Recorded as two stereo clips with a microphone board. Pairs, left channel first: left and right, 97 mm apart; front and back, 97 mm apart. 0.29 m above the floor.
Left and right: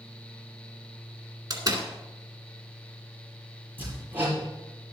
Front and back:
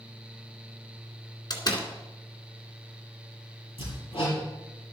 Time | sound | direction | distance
1.5 | a door slam | 40° right | 2 m
3.8 | hammering | 20° right | 6.5 m